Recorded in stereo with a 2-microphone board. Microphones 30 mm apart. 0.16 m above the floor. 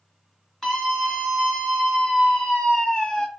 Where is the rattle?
I don't hear a rattle.